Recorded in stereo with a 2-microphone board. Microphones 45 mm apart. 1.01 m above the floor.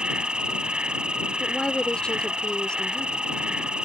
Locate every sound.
0.0 s an insect: 20° right (ahead or behind)
1.4 s a woman speaking: 20° left (ahead or behind)